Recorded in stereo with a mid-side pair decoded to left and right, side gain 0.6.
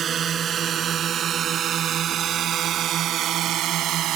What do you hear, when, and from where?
0.0 s a drone: 40° right; by 4.2 s 60° right